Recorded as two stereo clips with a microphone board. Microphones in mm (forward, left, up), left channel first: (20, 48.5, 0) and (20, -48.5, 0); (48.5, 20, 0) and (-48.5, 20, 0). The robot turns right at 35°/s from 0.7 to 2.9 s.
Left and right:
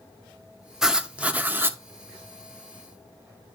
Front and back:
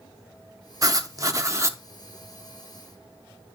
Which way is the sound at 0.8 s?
175° right.